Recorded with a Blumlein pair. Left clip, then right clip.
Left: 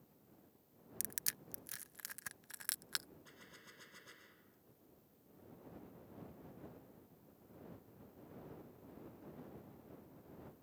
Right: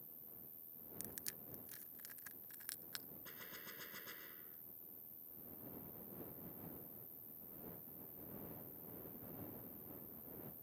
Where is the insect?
50° right.